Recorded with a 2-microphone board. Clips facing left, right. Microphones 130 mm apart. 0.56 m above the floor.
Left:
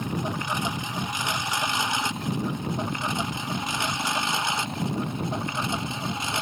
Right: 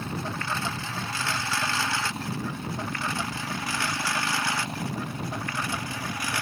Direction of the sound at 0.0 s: 15° left (ahead or behind).